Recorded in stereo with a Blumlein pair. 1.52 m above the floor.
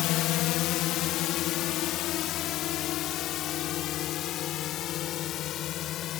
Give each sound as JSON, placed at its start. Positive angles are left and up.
{"t": 0.0, "sound": "a drone", "azimuth_deg": 35}